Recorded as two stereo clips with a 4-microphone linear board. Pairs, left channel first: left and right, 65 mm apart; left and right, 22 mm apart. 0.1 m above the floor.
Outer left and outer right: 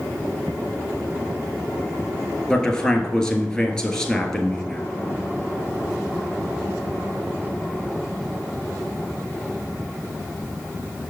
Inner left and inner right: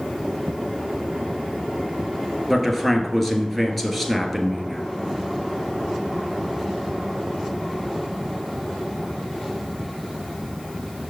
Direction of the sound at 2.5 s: 10° left (ahead or behind).